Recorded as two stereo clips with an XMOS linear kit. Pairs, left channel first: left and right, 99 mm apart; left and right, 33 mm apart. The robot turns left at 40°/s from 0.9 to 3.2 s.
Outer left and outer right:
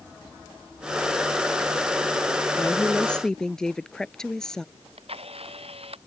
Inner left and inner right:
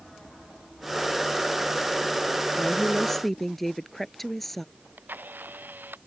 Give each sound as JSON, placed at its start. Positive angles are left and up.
{"t": 2.6, "sound": "a woman speaking", "side_deg": 30}
{"t": 4.8, "sound": "a camera shutter", "side_deg": -85}